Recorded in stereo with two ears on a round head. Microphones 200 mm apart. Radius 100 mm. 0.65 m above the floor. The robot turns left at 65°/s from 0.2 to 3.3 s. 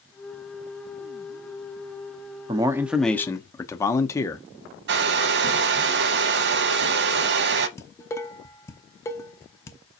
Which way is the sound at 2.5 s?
145° right.